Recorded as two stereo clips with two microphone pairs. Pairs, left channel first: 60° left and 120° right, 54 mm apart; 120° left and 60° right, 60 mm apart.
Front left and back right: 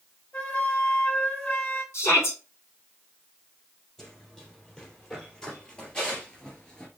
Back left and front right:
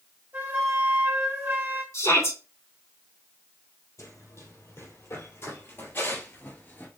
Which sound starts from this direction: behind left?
Running footsteps, at 4.0 s.